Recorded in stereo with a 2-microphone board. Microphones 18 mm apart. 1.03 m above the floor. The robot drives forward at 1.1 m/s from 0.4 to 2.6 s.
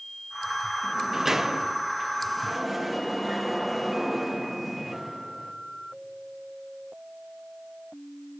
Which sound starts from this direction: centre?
A sliding door, at 0.8 s.